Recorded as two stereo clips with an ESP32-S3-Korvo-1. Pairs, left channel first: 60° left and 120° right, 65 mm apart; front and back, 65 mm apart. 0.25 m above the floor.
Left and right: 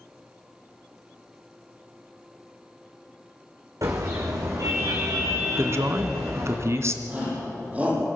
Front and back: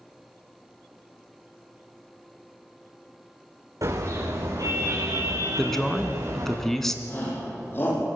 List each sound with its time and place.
3.8 s a car horn: 150° right, 8.5 m; by 6.6 s 165° right, 8 m
5.6 s a man speaking: 85° right, 2 m
7.1 s a shout: 55° right, 9.5 m